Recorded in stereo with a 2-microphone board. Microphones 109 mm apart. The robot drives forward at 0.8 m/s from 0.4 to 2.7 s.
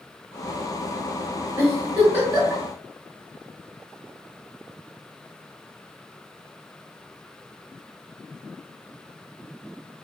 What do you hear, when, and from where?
1.6 s a giggle: 20° right (ahead or behind), 2.0 m; by 2.6 s 15° right (ahead or behind), 2.5 m